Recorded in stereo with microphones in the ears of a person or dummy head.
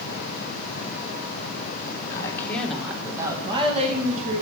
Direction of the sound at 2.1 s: 20° left (ahead or behind).